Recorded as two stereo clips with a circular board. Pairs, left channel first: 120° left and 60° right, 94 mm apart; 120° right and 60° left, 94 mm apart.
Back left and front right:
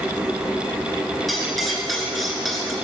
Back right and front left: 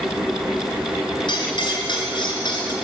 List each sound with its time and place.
1.3 s cutlery clinking: 150° right, 2 m